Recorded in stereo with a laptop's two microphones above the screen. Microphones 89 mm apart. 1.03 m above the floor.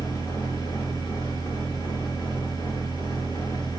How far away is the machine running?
About 1.0 m.